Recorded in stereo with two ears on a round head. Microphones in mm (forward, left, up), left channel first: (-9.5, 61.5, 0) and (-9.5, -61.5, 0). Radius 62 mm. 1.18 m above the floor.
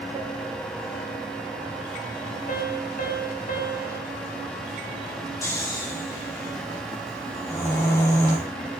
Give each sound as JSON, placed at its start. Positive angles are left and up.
{"t": 2.5, "sound": "a piano", "side_deg": 60, "distance_m": 5.5}
{"t": 5.4, "sound": "snoring", "side_deg": 20, "distance_m": 5.0}